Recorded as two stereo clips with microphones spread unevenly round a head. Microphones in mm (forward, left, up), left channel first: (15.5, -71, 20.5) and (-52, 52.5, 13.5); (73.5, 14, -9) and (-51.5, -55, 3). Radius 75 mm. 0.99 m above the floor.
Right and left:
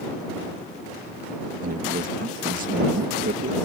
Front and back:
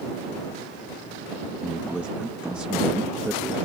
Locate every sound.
1.6 s a man speaking: 125° left